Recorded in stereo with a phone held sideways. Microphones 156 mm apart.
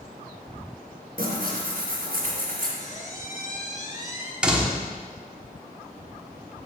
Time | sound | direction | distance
1.2 | tearing paper | 70° right (ahead or behind) | 2.5 m
2.8 | a squeak | 55° left (ahead or behind) | 1.4 m
4.4 | a door slam | 5° right (ahead or behind) | 1.1 m